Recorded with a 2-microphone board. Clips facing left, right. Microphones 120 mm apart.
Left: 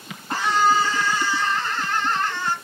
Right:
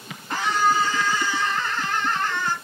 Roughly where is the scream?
Left.